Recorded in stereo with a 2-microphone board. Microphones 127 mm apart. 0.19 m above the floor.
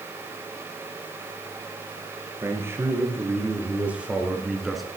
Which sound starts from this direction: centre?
A man speaking, at 2.4 s.